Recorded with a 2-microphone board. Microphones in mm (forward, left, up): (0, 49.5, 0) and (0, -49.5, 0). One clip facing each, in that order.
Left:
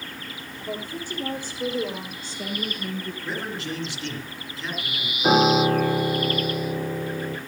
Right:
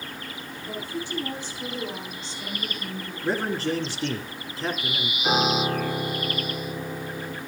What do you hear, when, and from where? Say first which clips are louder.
0.6 s a woman speaking: left 1 dB; 45° left (ahead or behind), 6.5 m; by 3.1 s 50° left (ahead or behind), 5 m
3.2 s a man speaking: right 10 dB; 40° right (ahead or behind), 2.5 m
5.2 s a piano: left 6 dB; 45° left (ahead or behind), 7 m